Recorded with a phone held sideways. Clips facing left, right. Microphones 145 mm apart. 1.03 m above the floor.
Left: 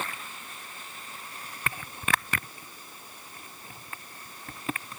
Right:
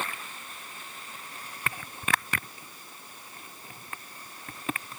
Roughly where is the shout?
No shout in this recording.